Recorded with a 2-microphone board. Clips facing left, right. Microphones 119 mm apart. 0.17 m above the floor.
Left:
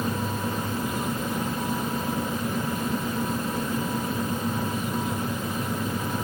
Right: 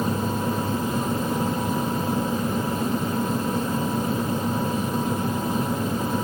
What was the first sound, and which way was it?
Only background noise.